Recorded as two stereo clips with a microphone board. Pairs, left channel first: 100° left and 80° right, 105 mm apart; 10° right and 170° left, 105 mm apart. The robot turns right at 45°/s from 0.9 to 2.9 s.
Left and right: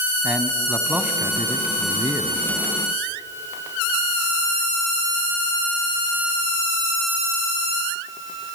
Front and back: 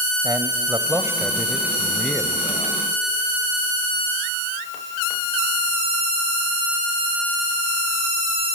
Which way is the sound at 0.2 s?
145° right.